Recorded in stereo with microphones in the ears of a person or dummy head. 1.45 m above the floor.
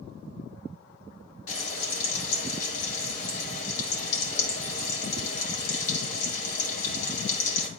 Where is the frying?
50° left (ahead or behind), 2 m.